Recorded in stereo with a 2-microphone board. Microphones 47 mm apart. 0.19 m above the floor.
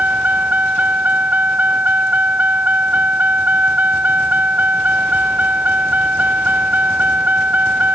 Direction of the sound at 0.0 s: 35° right (ahead or behind).